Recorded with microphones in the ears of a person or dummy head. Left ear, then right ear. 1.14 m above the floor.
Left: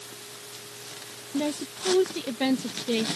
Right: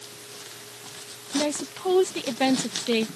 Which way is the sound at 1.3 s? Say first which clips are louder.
Right 3 dB; 30° right (ahead or behind).